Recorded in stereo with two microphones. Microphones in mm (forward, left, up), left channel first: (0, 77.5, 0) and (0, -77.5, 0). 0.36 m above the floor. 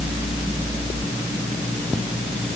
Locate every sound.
Only background noise.